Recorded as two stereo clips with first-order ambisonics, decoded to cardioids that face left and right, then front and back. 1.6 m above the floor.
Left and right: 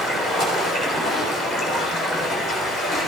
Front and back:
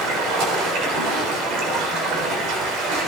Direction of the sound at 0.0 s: 170° right.